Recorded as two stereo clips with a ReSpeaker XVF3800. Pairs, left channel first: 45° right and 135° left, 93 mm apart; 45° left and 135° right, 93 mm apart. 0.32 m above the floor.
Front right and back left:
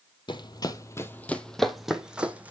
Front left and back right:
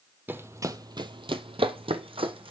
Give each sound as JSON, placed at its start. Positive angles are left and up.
{"t": 0.3, "sound": "running footsteps", "azimuth_deg": -65, "distance_m": 0.7}